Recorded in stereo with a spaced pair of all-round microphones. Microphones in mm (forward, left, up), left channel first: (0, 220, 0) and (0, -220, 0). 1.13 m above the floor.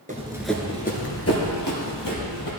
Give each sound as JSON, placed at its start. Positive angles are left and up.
{"t": 0.1, "sound": "running footsteps", "side_deg": -20, "distance_m": 1.1}